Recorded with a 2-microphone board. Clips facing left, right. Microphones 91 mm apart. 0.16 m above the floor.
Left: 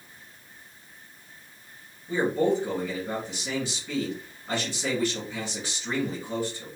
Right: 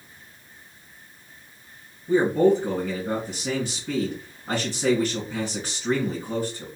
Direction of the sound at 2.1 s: 50° right (ahead or behind).